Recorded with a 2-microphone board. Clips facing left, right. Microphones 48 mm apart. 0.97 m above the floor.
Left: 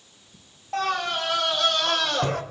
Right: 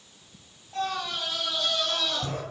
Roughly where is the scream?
Left.